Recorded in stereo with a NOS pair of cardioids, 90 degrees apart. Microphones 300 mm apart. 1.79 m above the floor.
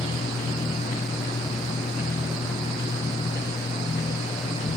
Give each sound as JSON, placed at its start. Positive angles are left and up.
{"t": 0.0, "sound": "a machine running", "azimuth_deg": 20}